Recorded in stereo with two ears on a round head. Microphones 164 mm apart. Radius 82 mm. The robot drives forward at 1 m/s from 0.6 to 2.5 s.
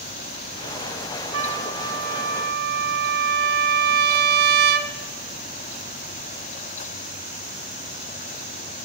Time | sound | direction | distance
1.3 | a trumpet | 80° right | 1.9 m